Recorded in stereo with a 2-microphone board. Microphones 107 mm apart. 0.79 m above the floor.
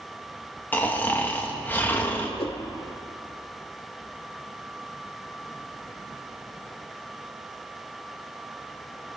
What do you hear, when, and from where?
0.7 s snoring: 15° left (ahead or behind), 1.0 m
2.4 s a whoosh: 60° left (ahead or behind), 0.6 m